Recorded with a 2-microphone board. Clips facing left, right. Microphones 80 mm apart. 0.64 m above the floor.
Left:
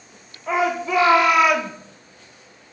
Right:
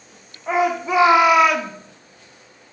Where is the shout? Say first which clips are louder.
Right 2 dB; 25° right (ahead or behind), 1.4 m; by 1.7 s 10° left (ahead or behind), 1.1 m.